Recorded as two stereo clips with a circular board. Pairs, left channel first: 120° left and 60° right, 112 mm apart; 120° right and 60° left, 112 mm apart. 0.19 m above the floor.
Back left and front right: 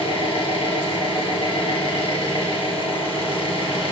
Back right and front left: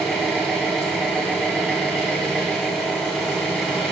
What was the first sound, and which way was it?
An engine running, 155° left.